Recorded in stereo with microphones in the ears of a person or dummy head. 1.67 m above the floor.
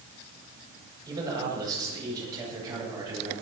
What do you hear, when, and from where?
1.1 s a man speaking: 20° right (ahead or behind), 7 m